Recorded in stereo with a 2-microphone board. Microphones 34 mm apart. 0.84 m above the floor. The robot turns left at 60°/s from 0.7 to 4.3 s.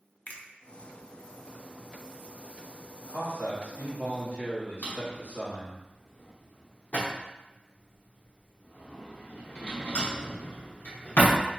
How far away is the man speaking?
About 1.5 m.